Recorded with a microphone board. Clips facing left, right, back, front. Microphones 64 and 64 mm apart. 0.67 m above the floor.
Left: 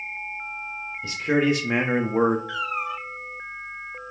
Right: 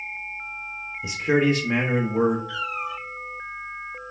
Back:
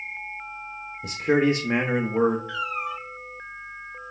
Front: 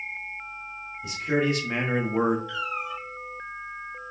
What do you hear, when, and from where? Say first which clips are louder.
1.0 s a man speaking: right 1 dB, back 4 dB; 165° right, 0.7 m; by 2.4 s 70° left, 0.6 m
2.5 s a cat meowing: left 1 dB, back 2 dB; 115° left, 2.5 m